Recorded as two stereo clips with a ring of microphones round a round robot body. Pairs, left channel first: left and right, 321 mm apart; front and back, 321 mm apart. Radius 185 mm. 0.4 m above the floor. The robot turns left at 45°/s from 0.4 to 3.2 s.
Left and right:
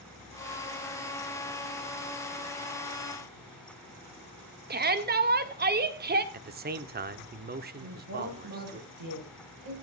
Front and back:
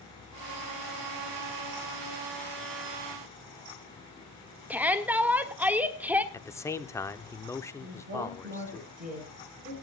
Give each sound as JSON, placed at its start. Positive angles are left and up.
{"t": 4.7, "sound": "a shout", "azimuth_deg": -100, "distance_m": 1.5}
{"t": 6.3, "sound": "a man speaking", "azimuth_deg": -75, "distance_m": 0.9}
{"t": 7.8, "sound": "a woman speaking", "azimuth_deg": -115, "distance_m": 10.0}